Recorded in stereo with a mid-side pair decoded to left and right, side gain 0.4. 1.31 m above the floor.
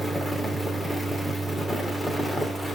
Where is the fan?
10° left, 3 m.